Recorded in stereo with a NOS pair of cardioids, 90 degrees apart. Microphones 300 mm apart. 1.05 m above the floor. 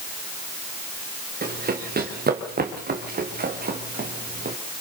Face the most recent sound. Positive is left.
turn(degrees=-30)